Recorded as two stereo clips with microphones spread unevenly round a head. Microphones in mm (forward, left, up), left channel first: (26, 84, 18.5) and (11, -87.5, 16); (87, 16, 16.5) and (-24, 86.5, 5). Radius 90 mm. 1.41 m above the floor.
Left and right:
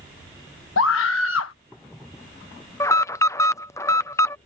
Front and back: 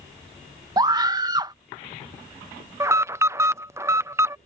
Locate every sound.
0.8 s a scream: 90° left
2.8 s an alarm: 135° left